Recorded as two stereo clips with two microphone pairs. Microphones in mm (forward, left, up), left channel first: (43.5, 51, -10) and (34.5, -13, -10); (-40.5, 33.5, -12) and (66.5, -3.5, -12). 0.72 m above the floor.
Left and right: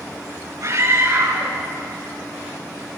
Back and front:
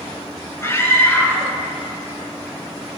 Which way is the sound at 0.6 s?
135° right.